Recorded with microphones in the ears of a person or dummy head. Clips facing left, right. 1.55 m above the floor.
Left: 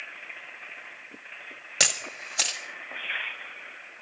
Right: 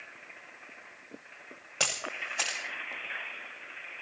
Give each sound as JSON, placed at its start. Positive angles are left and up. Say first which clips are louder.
{"t": 1.8, "sound": "a camera shutter", "louder": "left 1 dB", "side_deg": 15, "distance_m": 0.9}